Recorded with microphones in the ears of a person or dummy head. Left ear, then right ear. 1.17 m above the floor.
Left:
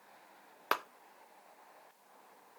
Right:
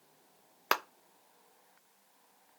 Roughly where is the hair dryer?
I don't hear a hair dryer.